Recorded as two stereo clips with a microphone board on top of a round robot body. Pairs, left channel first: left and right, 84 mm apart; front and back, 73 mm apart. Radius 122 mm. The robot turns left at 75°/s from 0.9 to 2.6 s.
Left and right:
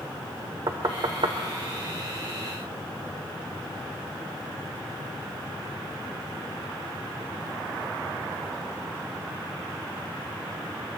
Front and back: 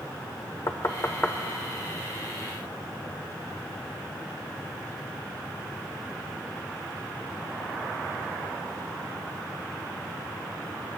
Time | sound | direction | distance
0.7 | knocking | 50° right | 1.0 m